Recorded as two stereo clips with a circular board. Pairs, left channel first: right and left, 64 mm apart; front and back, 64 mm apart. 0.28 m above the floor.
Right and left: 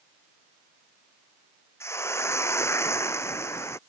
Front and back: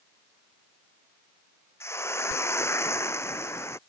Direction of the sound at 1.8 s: 45° right.